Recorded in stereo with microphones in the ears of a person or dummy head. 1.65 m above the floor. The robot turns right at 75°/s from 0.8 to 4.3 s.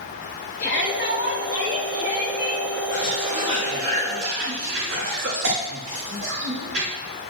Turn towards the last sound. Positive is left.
turn(degrees=-65)  # may be behind; listen again after turning